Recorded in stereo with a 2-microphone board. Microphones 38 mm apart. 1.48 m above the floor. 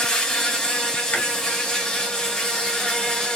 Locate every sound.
0.0 s an insect: 15° left (ahead or behind), 0.8 m
1.1 s chewing: 50° left (ahead or behind), 0.9 m